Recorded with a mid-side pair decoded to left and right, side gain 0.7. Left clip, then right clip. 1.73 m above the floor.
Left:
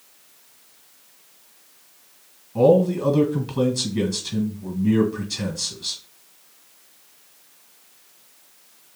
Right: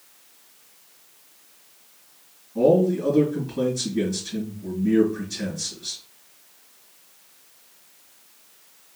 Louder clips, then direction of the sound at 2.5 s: Left 2 dB; 50° left.